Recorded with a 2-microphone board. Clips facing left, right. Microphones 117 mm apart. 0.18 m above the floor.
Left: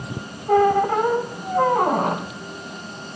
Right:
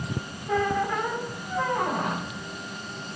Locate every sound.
0.5 s a squeak: 45° left (ahead or behind), 1.3 m